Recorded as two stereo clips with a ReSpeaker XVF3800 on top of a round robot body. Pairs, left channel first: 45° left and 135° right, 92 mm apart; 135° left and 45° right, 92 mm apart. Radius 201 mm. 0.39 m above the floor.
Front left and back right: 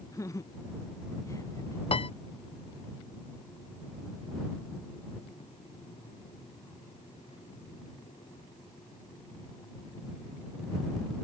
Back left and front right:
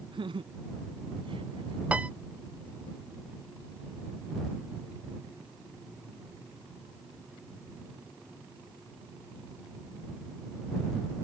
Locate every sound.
0.1 s laughter: 15° right
1.9 s a piano: 30° left